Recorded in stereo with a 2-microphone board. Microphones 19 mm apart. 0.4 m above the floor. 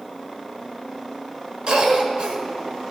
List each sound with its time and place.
1.7 s a cough: 50° right (ahead or behind), 1.2 m